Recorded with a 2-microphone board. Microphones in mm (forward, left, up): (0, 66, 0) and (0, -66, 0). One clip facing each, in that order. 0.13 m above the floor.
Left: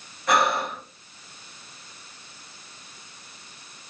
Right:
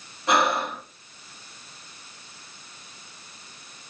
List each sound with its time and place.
0.3 s breathing: 25° right (ahead or behind), 1.4 m